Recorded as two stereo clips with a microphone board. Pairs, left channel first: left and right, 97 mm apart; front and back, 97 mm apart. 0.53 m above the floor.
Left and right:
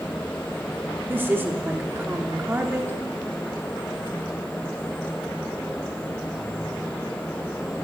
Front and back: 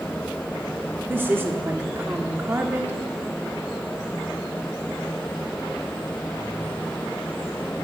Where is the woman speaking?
135° right, 1.2 m.